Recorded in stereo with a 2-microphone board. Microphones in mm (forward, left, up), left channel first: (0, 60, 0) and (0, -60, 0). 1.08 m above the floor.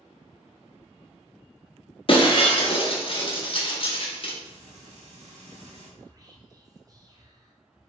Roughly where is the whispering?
Right.